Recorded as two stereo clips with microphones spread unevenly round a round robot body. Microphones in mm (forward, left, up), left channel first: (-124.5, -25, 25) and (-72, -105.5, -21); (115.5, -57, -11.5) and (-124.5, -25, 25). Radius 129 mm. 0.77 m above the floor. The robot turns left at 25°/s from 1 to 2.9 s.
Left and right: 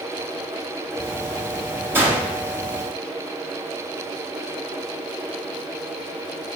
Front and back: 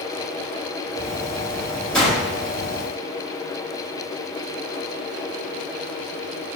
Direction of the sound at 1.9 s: 85° right.